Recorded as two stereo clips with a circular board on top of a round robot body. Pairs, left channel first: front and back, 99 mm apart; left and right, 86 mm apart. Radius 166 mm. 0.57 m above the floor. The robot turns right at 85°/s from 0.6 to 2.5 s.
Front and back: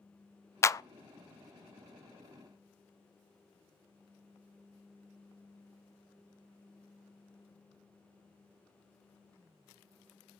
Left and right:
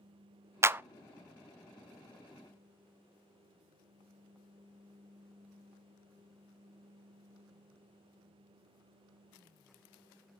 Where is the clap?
45° right, 0.6 m; by 0.8 s 30° right, 0.6 m.